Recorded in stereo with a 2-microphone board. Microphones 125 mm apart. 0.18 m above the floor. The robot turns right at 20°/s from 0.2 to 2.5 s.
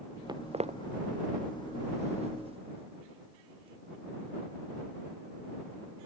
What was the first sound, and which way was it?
Footsteps, 35° right (ahead or behind).